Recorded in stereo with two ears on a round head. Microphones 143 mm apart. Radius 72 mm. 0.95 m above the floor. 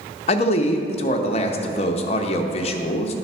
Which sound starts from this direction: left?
A man speaking, at 0.3 s.